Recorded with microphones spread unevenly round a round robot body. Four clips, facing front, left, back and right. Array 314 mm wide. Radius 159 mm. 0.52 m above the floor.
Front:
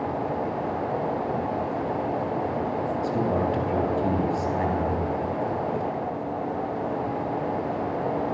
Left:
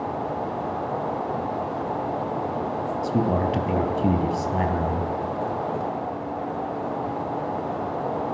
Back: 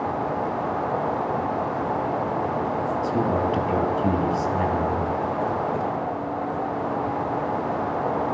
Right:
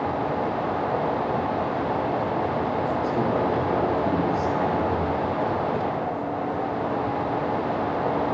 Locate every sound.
3.0 s a man speaking: 100° left, 5 m